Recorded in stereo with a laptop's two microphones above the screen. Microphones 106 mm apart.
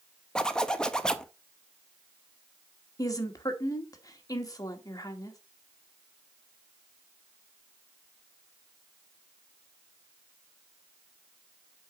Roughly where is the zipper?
Centre.